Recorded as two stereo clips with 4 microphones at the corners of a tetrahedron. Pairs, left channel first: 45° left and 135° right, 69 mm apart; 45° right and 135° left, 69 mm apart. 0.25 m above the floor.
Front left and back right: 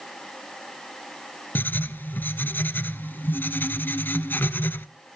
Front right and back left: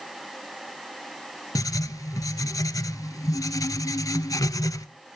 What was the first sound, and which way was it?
Writing, 15° right.